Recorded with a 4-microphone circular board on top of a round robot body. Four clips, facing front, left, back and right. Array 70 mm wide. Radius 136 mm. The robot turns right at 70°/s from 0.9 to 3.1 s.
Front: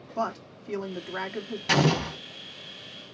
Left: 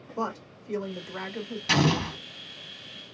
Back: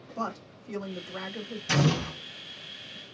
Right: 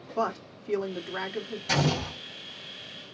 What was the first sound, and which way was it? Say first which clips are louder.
A woman speaking: right 3 dB, front 4 dB; 60° right.